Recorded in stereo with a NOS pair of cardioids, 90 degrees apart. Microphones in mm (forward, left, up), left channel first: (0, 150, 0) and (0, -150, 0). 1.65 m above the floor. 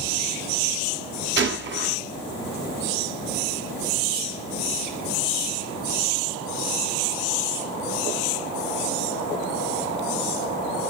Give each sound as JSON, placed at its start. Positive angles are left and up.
{"t": 1.4, "sound": "a gunshot", "azimuth_deg": -40, "distance_m": 0.9}